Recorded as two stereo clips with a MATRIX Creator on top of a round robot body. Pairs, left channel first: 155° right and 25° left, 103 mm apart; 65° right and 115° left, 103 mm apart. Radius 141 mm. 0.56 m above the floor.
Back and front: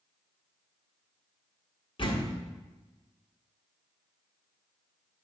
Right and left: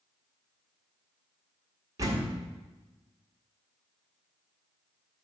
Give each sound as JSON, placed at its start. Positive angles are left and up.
{"t": 2.0, "sound": "a door slam", "azimuth_deg": 165, "distance_m": 1.7}